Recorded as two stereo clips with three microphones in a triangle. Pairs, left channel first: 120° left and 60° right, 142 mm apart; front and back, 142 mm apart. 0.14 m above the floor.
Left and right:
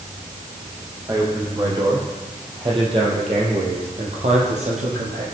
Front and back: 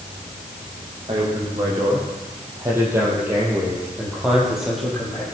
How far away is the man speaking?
About 6 m.